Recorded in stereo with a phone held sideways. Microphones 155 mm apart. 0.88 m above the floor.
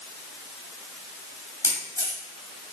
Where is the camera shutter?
20° left (ahead or behind), 4 m.